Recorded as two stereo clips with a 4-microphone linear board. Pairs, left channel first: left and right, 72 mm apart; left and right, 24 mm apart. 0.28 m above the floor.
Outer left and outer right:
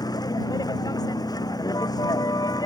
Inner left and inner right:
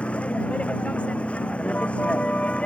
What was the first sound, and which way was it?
A vehicle, 60° left (ahead or behind).